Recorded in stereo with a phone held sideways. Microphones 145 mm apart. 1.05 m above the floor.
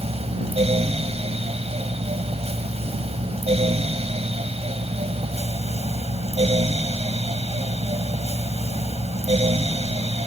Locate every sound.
0.0 s a fan: 45° right (ahead or behind)